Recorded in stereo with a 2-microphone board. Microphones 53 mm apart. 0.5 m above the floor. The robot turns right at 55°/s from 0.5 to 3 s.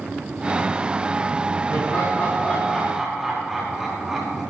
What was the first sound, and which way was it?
Laughter, 120° left.